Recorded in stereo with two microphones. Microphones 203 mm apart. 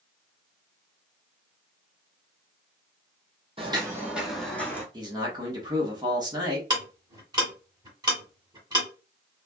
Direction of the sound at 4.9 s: 20° right (ahead or behind).